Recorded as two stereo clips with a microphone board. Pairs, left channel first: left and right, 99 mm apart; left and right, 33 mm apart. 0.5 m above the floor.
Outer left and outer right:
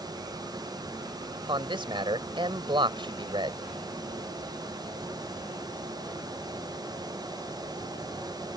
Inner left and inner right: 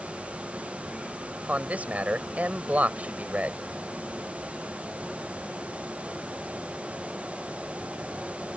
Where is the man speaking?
55° right (ahead or behind).